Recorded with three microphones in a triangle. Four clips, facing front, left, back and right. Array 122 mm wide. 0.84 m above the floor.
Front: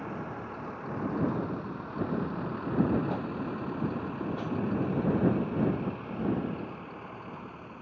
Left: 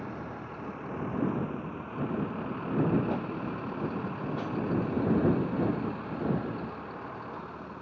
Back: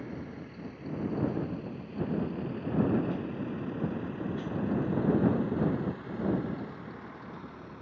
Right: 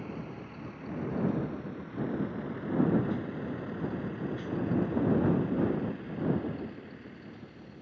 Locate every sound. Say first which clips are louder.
0.0 s a vehicle: left 2 dB, front 3 dB; 25° left; by 7.8 s 80° left